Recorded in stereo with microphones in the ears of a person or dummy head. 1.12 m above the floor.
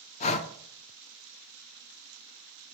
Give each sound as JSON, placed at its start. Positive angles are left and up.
{"t": 0.2, "sound": "breathing", "side_deg": 35, "distance_m": 0.6}